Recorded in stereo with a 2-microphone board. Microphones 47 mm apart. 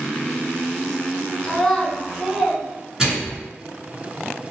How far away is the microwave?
About 1.8 m.